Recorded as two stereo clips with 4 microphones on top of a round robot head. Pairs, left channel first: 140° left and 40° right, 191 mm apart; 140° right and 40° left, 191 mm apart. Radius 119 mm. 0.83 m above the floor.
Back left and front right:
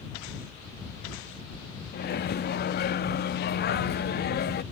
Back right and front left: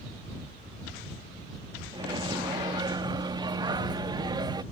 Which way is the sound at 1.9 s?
110° left.